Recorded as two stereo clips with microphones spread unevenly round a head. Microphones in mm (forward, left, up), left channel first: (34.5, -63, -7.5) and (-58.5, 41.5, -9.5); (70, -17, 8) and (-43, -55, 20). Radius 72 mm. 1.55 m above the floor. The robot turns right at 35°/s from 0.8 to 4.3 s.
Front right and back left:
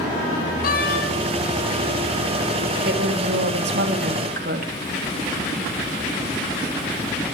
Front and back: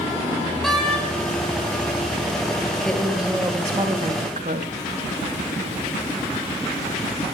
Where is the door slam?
70° right, 7.5 m; by 1.1 s 60° right, 7.5 m.